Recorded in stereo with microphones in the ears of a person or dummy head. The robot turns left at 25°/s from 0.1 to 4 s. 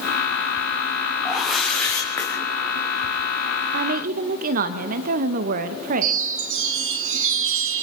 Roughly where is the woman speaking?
Right.